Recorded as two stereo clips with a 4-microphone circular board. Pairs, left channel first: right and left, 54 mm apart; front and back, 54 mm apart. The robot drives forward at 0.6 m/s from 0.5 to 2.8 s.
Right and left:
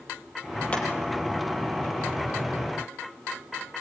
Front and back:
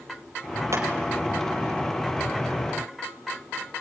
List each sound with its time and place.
0.7 s hammering: 155° right, 4 m